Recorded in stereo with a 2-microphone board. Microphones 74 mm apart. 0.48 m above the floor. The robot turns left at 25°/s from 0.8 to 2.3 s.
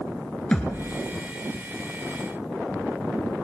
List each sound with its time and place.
0.5 s a thud: 10° left (ahead or behind), 1.3 m